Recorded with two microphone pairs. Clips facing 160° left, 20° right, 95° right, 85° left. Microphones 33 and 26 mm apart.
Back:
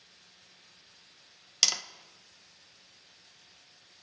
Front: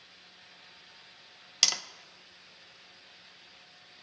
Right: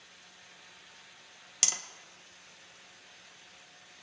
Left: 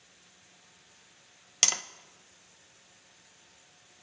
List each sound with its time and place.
1.6 s tapping: 65° left, 0.6 m